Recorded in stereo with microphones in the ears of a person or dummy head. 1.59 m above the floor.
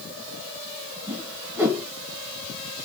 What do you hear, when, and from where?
1.1 s a whoosh: 5° right (ahead or behind), 1.8 m